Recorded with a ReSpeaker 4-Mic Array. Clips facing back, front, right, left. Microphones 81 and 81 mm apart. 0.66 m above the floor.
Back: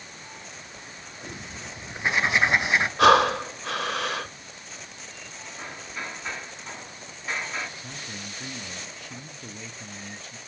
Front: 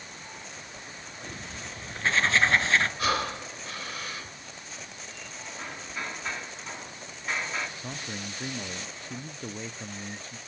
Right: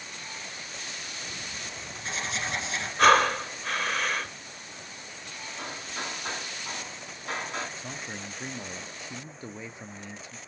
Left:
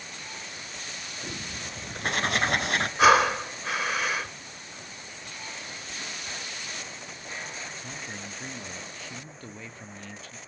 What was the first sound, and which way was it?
Writing, 105° left.